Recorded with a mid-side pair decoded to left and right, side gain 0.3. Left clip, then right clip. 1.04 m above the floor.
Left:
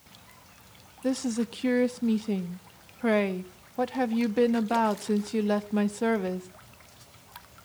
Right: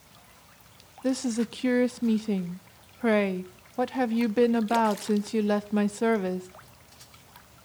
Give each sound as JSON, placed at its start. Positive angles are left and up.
{"t": 1.0, "sound": "a woman speaking", "azimuth_deg": -20, "distance_m": 1.1}